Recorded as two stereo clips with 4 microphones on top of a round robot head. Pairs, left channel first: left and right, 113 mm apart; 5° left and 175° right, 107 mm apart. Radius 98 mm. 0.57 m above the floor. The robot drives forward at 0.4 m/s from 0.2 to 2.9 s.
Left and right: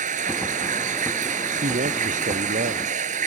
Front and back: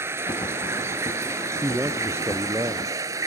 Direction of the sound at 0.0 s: 105° right.